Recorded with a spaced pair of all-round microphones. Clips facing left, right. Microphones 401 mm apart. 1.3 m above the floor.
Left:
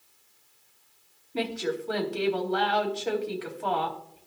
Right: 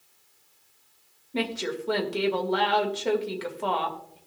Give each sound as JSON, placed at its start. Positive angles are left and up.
{"t": 1.3, "sound": "a woman speaking", "side_deg": -80, "distance_m": 2.0}